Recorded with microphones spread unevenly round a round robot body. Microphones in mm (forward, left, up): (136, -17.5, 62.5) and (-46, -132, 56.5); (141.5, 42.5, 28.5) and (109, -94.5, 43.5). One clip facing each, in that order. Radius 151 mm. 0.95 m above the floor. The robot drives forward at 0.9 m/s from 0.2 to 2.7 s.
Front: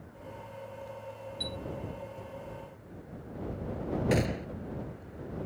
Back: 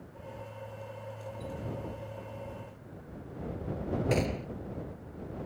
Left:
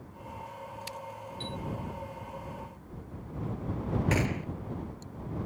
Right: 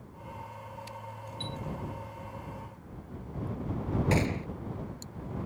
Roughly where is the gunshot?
Ahead right.